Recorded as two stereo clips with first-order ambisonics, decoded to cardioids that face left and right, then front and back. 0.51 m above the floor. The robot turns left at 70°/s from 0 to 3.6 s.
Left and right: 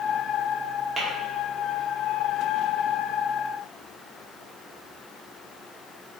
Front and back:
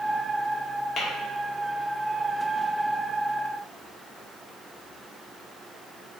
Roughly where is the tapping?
Ahead right.